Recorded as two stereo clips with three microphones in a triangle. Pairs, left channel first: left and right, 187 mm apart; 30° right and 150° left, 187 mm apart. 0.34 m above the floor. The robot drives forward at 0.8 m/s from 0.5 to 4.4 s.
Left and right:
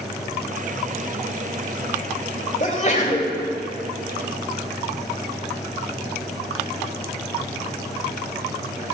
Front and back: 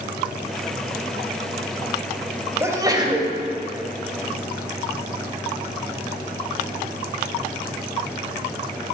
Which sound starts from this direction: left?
A sneeze, at 2.6 s.